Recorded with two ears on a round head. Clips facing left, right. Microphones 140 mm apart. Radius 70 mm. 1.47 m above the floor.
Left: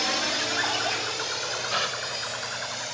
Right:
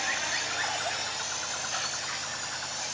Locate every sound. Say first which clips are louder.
0.0 s a drone: left 6 dB; 75° left (ahead or behind); by 2.9 s 70° left (ahead or behind)
1.7 s a gasp: left 7 dB; 80° left